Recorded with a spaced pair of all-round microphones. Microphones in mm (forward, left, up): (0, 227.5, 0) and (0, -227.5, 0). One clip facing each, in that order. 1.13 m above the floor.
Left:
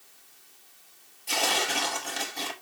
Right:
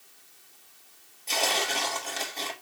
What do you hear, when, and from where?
1.3 s tearing paper: 30° left (ahead or behind), 1.3 m